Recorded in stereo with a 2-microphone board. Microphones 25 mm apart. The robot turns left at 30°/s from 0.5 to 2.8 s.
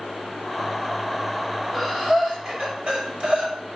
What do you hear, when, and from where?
1.7 s breathing: 20° right (ahead or behind), 2 m; by 3.5 s 55° right (ahead or behind), 2 m